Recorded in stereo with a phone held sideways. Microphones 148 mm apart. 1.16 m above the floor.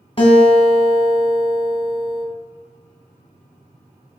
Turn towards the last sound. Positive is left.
turn(degrees=35)  # may be behind; listen again after turning